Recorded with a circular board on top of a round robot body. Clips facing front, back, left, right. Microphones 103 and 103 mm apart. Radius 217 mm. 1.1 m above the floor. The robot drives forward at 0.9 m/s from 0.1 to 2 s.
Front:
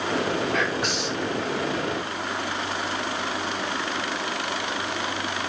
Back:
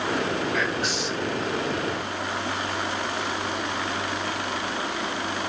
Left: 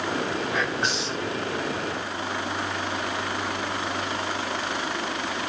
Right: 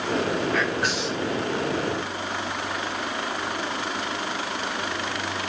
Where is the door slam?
No door slam in this recording.